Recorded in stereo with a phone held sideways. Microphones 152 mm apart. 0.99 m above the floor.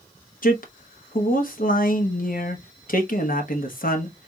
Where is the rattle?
No rattle in this recording.